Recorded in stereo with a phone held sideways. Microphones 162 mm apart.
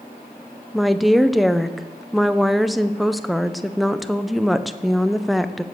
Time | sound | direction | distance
0.7 | a woman speaking | centre (ahead or behind) | 0.8 m